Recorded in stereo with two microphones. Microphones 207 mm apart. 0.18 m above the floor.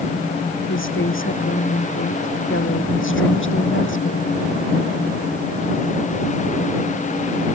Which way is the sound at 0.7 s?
75° left (ahead or behind).